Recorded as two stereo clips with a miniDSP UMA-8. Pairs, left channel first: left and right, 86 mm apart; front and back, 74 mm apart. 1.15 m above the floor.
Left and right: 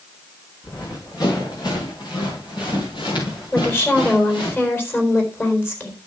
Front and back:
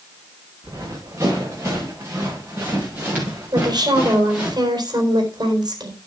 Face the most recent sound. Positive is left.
turn(degrees=155)